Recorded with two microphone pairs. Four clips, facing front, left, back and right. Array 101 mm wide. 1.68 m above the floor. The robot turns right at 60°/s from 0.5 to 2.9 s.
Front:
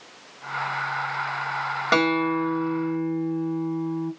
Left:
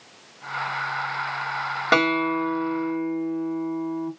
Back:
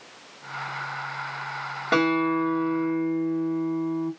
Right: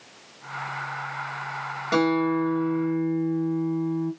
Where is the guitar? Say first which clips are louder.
Even, even; 60° left, 2.5 m; by 4.1 s 120° left, 2.5 m.